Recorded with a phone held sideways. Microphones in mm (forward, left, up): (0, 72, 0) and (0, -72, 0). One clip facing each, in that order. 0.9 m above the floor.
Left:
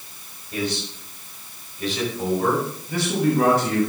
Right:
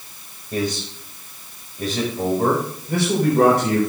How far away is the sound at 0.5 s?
About 5 m.